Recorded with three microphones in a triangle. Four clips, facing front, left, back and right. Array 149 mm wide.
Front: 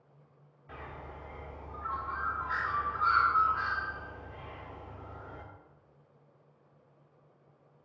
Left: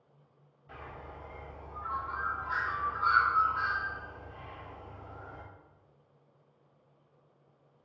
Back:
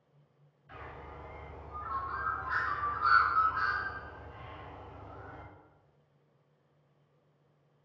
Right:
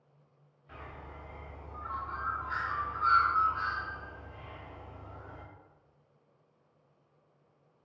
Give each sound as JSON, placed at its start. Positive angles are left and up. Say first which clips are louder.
{"t": 0.7, "sound": "a bird", "louder": "left 2 dB, front 1 dB", "azimuth_deg": 15, "distance_m": 1.3}